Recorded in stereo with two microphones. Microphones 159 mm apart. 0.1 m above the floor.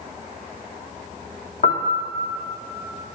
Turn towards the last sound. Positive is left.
turn(degrees=75)  # may be behind; listen again after turning